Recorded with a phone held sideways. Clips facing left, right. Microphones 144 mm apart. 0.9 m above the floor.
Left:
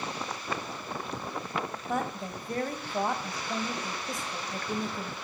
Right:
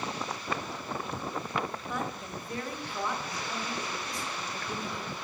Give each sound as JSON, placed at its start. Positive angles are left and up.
{"t": 1.9, "sound": "a woman speaking", "side_deg": 45, "distance_m": 1.4}